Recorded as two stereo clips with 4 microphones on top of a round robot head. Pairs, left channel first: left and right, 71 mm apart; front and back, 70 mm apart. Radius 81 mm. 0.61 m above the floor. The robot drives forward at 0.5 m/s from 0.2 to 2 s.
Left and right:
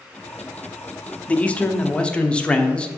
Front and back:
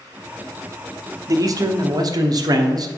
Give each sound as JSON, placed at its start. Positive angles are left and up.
{"t": 1.3, "sound": "a man speaking", "azimuth_deg": 155, "distance_m": 0.9}